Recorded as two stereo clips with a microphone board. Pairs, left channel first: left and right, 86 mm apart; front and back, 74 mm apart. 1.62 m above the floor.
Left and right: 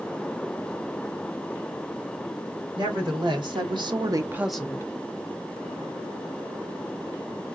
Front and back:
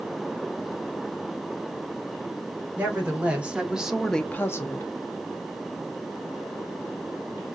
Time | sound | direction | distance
2.8 | a woman speaking | 110° right | 2 m